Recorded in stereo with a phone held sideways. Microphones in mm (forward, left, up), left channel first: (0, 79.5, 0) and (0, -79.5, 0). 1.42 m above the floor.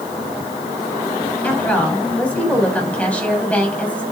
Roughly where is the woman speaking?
Centre.